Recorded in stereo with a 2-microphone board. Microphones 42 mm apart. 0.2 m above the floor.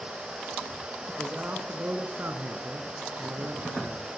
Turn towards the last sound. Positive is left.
turn(degrees=-60)  # may be behind; listen again after turning